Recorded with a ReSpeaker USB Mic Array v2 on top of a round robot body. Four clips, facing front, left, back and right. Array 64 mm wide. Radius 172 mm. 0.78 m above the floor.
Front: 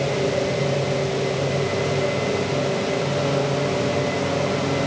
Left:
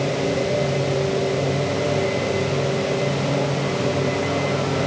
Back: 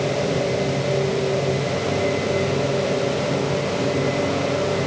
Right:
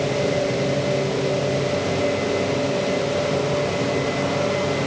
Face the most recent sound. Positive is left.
No sound to turn to.